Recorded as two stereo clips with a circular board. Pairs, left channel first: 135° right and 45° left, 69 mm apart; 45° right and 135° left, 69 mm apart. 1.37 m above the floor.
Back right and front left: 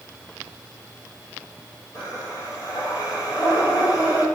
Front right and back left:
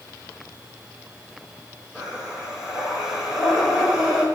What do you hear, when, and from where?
1.9 s breathing: 145° right, 6 m